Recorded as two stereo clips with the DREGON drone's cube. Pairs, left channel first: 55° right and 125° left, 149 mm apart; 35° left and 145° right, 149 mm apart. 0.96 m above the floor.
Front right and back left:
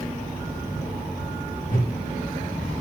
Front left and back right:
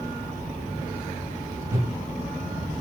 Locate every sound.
1.7 s a whoosh: 75° right, 4 m